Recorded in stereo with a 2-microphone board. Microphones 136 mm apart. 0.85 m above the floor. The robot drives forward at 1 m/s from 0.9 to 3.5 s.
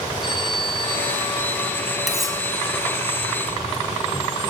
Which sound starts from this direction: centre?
Cutlery clinking, at 2.1 s.